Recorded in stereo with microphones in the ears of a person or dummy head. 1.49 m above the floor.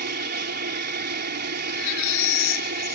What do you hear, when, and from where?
0.0 s an aircraft: 50° right (ahead or behind)
1.7 s a baby crying: 65° left (ahead or behind)